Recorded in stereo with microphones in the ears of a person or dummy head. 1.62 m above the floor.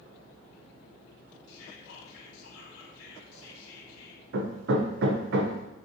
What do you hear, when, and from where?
1.5 s whispering: 80° left, 3 m
4.3 s hammering: 65° right (ahead or behind), 1.1 m